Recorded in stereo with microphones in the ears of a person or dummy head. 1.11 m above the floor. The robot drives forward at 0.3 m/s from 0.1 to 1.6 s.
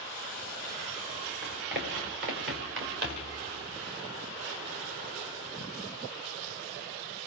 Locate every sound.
1.4 s running footsteps: 75° right (ahead or behind), 3.5 m; by 3.4 s 65° right (ahead or behind), 3 m